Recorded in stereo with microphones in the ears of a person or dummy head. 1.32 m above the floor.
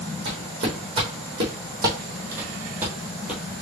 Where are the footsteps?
40° right (ahead or behind), 3 m; by 3.4 s 5° right (ahead or behind), 1.7 m.